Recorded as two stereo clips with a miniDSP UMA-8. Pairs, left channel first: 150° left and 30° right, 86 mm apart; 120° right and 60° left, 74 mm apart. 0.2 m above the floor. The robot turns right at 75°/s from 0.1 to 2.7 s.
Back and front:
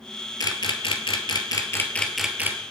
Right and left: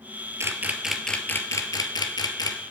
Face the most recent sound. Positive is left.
turn(degrees=-80)